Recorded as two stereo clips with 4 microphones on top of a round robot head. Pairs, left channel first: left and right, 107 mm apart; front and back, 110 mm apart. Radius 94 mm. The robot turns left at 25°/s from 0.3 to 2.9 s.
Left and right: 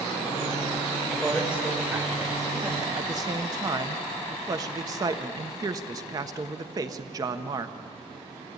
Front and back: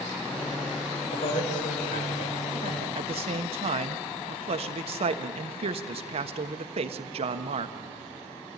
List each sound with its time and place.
1.1 s a man speaking: straight ahead, 4.5 m; by 2.9 s 40° right, 4.5 m
3.0 s a man speaking: 150° right, 1.1 m